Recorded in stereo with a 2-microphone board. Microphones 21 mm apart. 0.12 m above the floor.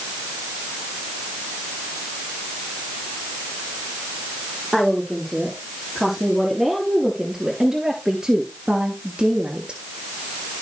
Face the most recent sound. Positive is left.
turn(degrees=-50)  # may be behind; listen again after turning